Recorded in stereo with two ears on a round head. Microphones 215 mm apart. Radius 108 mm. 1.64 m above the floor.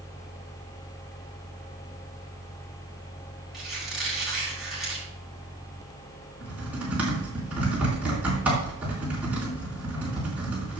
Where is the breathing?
No breathing in this recording.